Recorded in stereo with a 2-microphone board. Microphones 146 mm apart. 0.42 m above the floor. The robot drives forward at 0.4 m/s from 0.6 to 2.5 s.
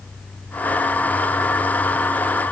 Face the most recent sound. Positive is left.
No sound to turn to.